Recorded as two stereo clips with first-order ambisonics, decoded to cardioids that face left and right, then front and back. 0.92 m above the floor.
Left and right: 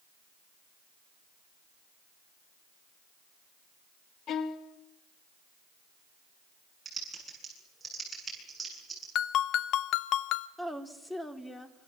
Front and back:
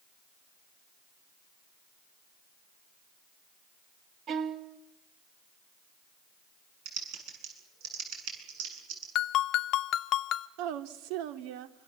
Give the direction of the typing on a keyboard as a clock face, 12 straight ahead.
6 o'clock.